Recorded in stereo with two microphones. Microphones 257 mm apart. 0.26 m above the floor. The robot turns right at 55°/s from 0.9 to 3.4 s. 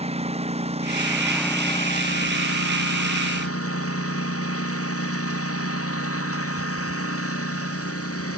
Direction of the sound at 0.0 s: 25° right.